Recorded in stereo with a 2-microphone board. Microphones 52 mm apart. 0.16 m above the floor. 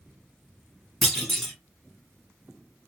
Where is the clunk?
5° left (ahead or behind), 1.2 m.